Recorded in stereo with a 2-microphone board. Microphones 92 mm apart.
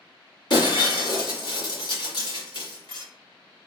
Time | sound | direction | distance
0.5 | breaking glass | 55° left (ahead or behind) | 1.5 m